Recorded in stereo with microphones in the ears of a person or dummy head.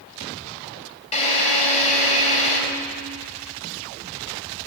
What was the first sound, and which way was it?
A drill, 35° left (ahead or behind).